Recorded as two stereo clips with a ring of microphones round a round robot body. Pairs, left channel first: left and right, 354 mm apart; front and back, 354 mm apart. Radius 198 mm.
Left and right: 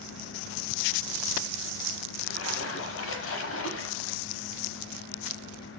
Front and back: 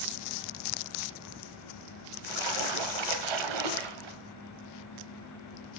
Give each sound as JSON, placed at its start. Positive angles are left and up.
{"t": 2.2, "sound": "a splash", "azimuth_deg": 150, "distance_m": 0.7}